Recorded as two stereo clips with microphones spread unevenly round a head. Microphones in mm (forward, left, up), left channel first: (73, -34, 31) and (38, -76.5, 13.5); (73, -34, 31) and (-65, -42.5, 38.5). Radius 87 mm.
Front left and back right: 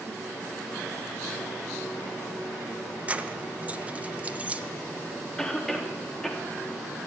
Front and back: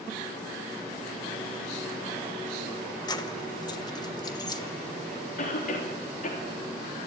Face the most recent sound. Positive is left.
turn(degrees=-25)